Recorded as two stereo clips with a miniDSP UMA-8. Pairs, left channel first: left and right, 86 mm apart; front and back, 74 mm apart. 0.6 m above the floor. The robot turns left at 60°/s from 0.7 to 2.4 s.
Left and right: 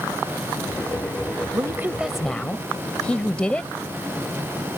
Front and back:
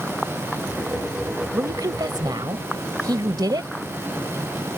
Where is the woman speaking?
140° right; by 3.7 s 165° left.